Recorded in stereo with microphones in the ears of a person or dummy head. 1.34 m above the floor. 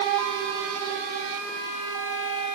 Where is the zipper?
I don't hear a zipper.